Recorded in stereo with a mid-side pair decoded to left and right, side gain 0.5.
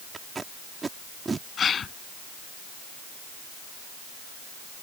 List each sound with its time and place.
0.1 s tape being pulled: 30° right
1.6 s a gasp: 45° left